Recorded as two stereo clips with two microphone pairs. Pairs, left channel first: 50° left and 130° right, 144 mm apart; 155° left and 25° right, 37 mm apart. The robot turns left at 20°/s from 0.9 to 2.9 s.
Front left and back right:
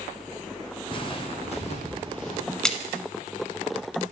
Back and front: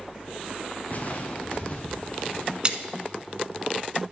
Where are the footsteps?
105° left, 1.2 m; by 2.5 s 80° left, 3.5 m.